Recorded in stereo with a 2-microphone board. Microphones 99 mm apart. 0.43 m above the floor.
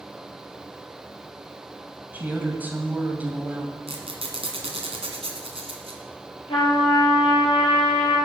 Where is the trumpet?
70° left (ahead or behind), 7.5 m.